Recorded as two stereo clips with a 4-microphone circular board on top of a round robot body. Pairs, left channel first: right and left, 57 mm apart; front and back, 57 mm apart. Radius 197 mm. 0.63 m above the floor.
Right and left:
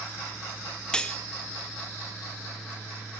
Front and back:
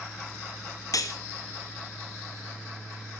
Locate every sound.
0.9 s cutlery clinking: 15° right, 0.7 m